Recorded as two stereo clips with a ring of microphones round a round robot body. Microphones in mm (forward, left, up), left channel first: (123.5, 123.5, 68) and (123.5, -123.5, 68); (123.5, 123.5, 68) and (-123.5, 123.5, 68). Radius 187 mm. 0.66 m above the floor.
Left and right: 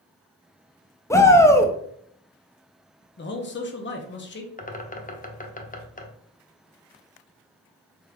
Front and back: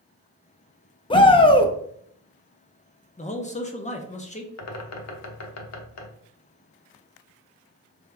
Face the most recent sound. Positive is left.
turn(degrees=25)